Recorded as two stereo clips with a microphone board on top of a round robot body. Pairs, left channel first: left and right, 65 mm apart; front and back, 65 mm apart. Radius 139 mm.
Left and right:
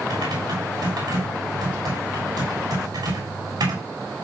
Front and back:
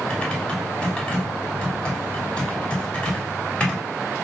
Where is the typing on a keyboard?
80° right, 6 m.